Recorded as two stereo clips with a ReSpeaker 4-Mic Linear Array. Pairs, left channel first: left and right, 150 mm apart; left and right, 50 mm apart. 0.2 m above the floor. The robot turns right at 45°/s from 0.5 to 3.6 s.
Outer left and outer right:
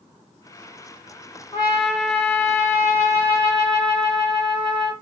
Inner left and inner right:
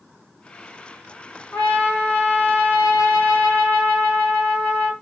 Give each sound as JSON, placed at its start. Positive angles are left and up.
{"t": 1.5, "sound": "a trumpet", "azimuth_deg": 45, "distance_m": 2.5}